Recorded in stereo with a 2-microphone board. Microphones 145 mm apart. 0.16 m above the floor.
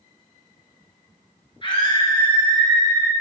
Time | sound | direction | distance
1.6 | a scream | 35° left (ahead or behind) | 2.5 m